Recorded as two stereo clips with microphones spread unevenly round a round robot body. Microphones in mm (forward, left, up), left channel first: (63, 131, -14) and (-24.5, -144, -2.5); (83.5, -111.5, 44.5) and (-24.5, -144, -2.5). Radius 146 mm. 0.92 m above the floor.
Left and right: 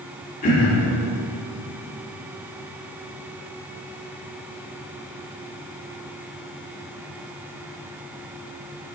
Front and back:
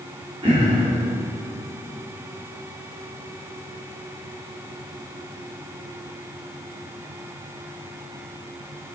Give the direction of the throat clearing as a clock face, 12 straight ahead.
7 o'clock.